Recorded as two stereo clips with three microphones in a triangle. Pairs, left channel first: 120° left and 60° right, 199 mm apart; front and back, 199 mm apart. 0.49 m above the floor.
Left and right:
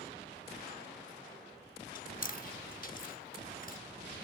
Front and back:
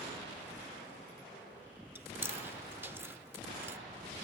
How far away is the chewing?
About 0.9 m.